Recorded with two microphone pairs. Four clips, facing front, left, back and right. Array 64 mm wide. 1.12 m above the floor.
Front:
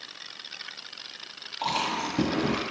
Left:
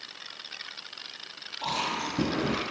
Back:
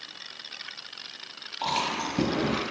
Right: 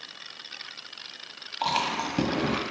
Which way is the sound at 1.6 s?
90° right.